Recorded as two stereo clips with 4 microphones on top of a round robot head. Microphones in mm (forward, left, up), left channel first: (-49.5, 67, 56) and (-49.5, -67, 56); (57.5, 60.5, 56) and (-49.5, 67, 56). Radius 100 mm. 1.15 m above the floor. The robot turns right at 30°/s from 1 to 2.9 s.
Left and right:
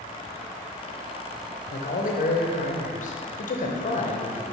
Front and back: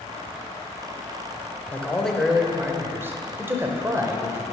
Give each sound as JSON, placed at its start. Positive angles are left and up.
{"t": 1.7, "sound": "a man speaking", "azimuth_deg": 70, "distance_m": 1.0}